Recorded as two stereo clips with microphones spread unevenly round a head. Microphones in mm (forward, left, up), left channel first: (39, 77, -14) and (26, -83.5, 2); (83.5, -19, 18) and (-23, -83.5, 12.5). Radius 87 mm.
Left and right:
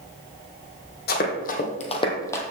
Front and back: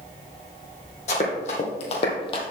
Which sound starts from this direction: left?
Running footsteps, at 1.1 s.